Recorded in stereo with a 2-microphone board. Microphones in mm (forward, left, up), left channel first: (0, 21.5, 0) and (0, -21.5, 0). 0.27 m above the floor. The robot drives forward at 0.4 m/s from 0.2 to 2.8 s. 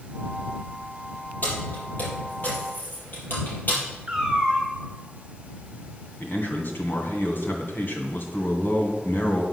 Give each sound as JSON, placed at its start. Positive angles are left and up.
{"t": 1.4, "sound": "keys jangling", "side_deg": 40, "distance_m": 5.0}
{"t": 4.1, "sound": "a cat meowing", "side_deg": -25, "distance_m": 2.5}
{"t": 6.2, "sound": "a man speaking", "side_deg": 55, "distance_m": 2.5}